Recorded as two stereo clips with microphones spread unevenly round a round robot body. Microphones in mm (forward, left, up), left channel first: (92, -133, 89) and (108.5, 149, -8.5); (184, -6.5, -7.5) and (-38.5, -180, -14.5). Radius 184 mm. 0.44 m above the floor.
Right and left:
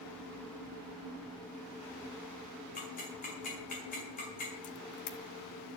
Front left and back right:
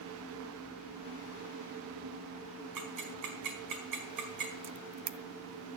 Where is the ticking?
165° right, 4.5 m.